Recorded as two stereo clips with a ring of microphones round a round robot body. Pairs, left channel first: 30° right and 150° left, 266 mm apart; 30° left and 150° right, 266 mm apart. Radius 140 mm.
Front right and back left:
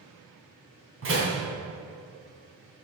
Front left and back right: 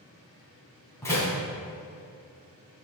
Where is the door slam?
110° left, 3 m.